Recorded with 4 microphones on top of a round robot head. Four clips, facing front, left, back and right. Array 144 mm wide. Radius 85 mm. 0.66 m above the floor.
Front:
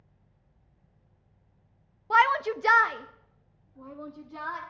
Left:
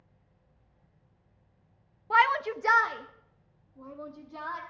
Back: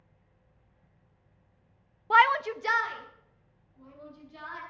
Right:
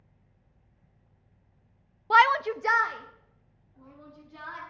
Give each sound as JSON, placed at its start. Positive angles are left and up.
{"t": 2.1, "sound": "a shout", "azimuth_deg": -115, "distance_m": 0.5}